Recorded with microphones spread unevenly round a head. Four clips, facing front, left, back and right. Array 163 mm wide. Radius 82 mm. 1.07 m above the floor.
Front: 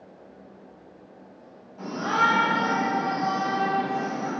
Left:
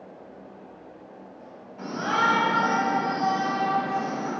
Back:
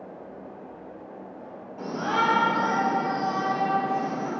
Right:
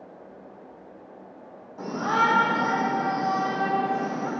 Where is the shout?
135° right, 4.5 m; by 4.3 s 115° right, 5 m.